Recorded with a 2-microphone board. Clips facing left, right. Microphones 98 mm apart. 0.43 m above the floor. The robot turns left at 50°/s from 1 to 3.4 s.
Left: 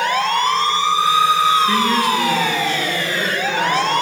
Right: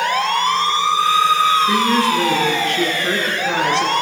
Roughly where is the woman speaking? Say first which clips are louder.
Right 1 dB; ahead.